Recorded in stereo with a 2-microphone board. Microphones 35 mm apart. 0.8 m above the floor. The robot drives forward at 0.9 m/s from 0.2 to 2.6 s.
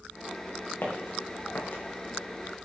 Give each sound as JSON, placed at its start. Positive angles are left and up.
{"t": 0.8, "sound": "footsteps", "side_deg": 80, "distance_m": 4.0}